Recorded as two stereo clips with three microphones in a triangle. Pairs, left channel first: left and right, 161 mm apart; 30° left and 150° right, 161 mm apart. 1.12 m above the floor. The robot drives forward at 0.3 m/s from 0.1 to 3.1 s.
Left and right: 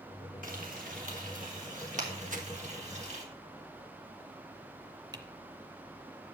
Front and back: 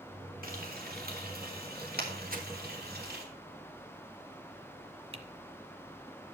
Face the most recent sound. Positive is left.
turn(degrees=-140)